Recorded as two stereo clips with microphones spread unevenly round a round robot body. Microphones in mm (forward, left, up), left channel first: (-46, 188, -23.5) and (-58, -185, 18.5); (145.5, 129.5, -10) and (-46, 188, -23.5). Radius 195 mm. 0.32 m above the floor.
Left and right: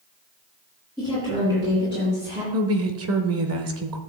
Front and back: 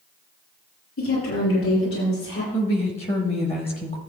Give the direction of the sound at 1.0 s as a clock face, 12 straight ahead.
12 o'clock.